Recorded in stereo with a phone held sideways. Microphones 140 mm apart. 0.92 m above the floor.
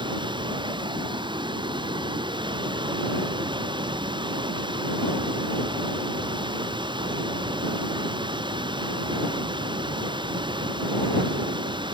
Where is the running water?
35° right (ahead or behind).